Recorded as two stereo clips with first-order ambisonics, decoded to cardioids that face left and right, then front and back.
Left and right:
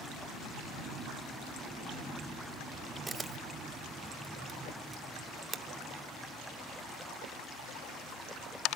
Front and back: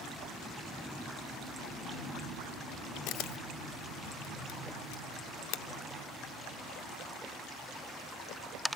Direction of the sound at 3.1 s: 20° right.